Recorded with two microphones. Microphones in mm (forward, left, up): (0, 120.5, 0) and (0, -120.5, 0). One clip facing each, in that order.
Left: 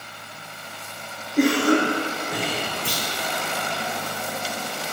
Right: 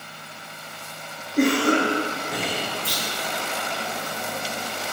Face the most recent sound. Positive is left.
turn(degrees=75)  # may be behind; listen again after turning